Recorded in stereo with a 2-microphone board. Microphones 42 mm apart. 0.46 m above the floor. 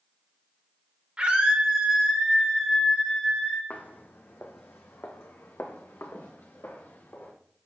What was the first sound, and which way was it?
A scream, 30° right (ahead or behind).